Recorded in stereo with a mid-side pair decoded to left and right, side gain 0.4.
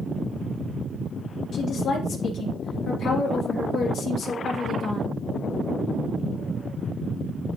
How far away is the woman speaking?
About 3 m.